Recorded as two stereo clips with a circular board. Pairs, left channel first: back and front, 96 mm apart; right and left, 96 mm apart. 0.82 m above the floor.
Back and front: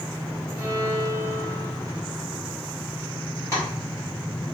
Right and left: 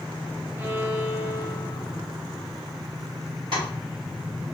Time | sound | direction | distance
0.6 | a violin | 35° left | 0.7 m
3.5 | tapping | 120° left | 2.5 m